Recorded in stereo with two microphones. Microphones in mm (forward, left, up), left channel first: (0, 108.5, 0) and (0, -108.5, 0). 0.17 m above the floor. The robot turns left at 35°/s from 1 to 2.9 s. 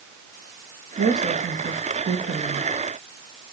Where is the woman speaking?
90° right, 4.5 m; by 2.7 s 150° right, 4.5 m.